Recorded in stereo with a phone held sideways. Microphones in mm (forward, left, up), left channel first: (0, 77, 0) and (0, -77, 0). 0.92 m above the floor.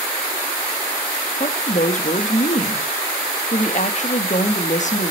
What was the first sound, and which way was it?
A woman speaking, 50° left (ahead or behind).